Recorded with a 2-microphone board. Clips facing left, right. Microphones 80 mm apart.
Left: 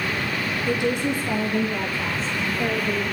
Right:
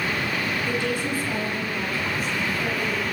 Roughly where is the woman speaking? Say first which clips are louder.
Left 7 dB; centre.